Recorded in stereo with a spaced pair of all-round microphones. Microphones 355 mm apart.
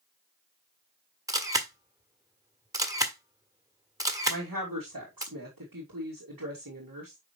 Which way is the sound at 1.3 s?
10° right (ahead or behind).